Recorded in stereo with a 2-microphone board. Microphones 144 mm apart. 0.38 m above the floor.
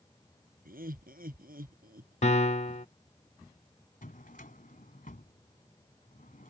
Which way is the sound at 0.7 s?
75° right (ahead or behind).